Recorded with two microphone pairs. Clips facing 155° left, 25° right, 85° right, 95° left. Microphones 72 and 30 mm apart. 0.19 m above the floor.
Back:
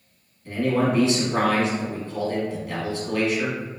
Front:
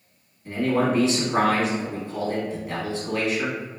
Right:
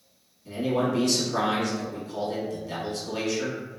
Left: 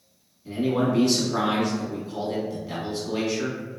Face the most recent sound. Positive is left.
turn(degrees=30)